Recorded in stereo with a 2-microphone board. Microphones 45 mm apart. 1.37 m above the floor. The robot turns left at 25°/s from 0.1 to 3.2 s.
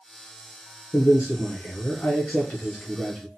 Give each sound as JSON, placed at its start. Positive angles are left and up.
{"t": 0.9, "sound": "a man speaking", "azimuth_deg": 65, "distance_m": 0.6}